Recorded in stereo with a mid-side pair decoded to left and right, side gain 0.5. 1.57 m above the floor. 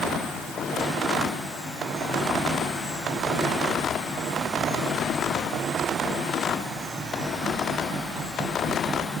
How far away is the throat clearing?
No throat clearing in this recording.